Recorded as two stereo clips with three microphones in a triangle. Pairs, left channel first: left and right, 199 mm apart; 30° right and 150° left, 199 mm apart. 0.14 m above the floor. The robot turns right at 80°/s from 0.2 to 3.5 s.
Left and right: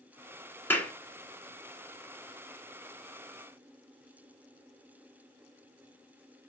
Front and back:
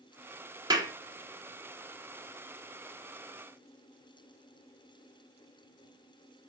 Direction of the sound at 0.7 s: 150° left.